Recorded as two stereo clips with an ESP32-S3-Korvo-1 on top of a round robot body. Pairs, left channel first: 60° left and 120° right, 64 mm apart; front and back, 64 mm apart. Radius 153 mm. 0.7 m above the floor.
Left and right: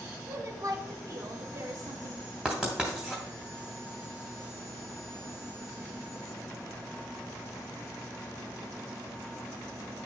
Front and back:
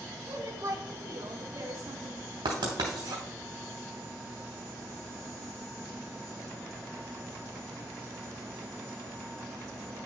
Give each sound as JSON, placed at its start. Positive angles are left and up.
{"t": 0.3, "sound": "a woman speaking", "azimuth_deg": -150, "distance_m": 1.8}
{"t": 2.5, "sound": "writing", "azimuth_deg": 160, "distance_m": 0.7}